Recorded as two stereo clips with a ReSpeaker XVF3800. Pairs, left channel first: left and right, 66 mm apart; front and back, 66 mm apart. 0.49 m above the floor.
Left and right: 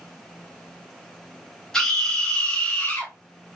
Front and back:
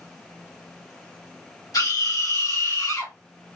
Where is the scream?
10° left, 2 m; by 3.1 s 30° left, 2 m.